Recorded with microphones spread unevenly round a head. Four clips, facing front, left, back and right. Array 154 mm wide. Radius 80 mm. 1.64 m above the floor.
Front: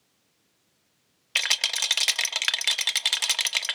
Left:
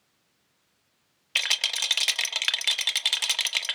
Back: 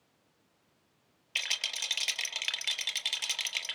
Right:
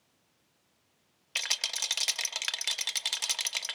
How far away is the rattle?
About 1.0 m.